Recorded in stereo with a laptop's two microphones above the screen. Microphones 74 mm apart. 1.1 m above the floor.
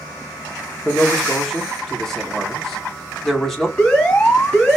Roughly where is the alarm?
Centre.